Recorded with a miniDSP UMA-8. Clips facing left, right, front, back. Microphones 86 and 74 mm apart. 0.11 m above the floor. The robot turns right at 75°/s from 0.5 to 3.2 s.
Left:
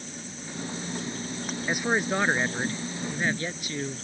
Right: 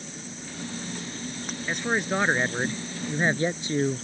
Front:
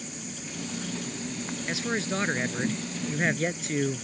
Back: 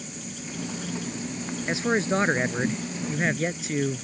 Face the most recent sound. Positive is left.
turn(degrees=-95)